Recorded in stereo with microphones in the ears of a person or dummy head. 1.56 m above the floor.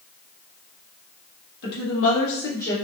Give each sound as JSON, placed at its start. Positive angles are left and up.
{"t": 1.6, "sound": "a woman speaking", "side_deg": 55, "distance_m": 1.3}